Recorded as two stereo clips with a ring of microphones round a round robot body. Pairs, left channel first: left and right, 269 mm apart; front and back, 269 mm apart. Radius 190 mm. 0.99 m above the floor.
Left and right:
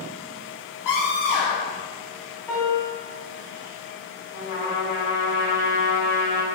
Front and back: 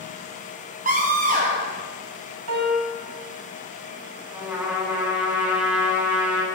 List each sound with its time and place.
0.8 s a scream: 115° left, 0.8 m
2.5 s a piano: 175° left, 1.6 m
4.3 s a trumpet: 95° left, 3 m